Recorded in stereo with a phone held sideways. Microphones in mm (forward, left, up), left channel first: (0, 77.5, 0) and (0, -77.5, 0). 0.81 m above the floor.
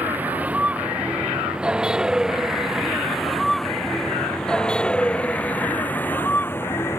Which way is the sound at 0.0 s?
10° right (ahead or behind).